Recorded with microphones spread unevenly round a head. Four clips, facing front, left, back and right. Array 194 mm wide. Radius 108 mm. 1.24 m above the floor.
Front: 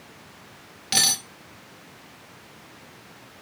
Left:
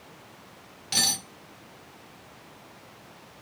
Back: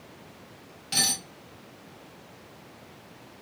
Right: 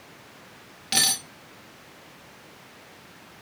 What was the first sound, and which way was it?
Cutlery clinking, 45° right.